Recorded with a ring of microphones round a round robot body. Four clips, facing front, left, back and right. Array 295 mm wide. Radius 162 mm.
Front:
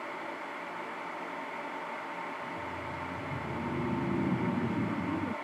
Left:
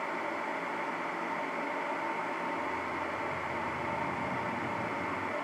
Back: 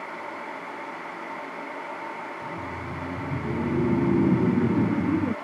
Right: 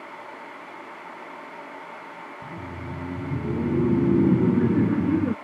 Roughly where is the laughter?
Behind right.